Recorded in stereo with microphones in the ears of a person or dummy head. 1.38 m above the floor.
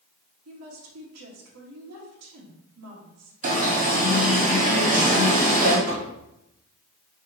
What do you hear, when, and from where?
0.5 s a woman speaking: 85° right, 2.0 m
3.4 s an alarm: 45° right (ahead or behind), 1.8 m
5.9 s knocking: 85° right, 1.4 m